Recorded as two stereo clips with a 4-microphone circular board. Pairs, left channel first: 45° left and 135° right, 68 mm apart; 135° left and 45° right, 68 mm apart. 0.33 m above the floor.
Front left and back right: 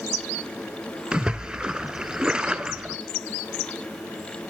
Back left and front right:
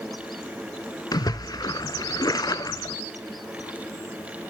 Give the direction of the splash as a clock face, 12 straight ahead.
7 o'clock.